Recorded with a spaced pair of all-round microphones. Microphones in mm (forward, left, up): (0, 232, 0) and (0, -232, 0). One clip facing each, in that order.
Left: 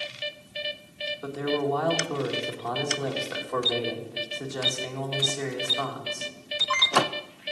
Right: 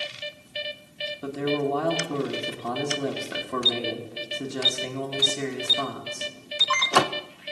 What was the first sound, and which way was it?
A man speaking, 45° right (ahead or behind).